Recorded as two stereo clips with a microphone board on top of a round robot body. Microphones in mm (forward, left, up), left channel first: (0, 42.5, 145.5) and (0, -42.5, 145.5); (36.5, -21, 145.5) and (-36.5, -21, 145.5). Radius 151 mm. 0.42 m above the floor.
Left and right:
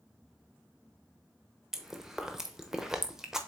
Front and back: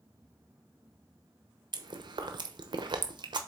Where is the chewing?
175° right, 0.9 m.